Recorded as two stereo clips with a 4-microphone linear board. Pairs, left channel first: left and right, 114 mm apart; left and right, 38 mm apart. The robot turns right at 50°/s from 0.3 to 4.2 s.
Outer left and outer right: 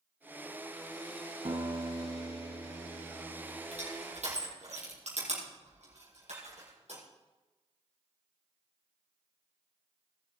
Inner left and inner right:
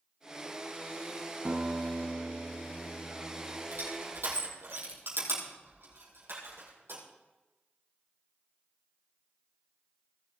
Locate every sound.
1.4 s a guitar: 65° right, 2 m; by 3.6 s 45° left, 2 m
3.7 s crushing: 70° right (ahead or behind), 5 m; by 7.0 s 85° right, 5 m